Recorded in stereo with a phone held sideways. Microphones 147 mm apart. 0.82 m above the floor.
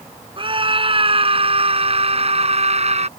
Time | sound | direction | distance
0.4 | a scream | 35° right (ahead or behind) | ?